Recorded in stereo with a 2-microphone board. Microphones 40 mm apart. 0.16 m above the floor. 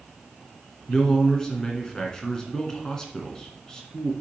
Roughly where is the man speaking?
Centre.